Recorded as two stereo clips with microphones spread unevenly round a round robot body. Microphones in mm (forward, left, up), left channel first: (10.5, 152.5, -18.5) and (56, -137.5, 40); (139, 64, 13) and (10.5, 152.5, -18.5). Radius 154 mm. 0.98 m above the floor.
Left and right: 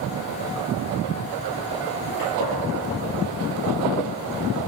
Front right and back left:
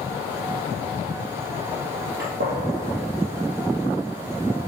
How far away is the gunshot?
About 3 m.